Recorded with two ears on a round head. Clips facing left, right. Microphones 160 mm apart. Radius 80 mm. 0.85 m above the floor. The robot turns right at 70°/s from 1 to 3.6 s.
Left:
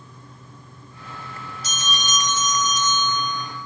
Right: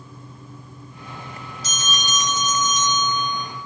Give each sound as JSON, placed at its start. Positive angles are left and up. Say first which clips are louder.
{"t": 1.6, "sound": "a bell", "louder": "even", "azimuth_deg": -100, "distance_m": 5.5}